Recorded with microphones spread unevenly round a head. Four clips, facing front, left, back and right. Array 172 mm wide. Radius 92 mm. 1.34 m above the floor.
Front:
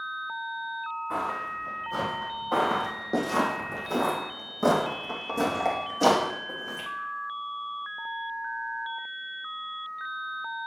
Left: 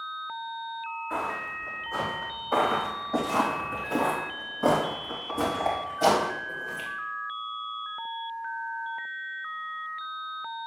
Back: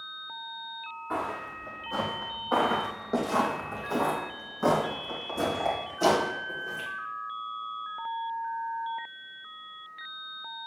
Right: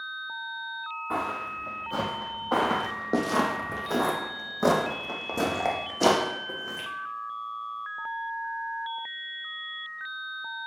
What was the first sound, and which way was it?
Footsteps, 120° right.